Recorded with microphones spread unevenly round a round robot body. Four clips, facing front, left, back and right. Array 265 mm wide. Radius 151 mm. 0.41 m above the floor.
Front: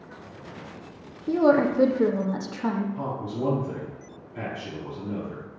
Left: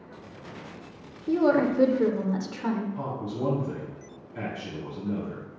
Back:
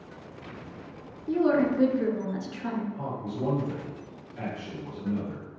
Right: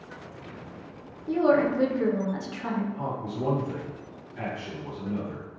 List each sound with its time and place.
1.3 s a woman speaking: 35° left, 1.0 m
3.0 s a man speaking: 65° left, 3.5 m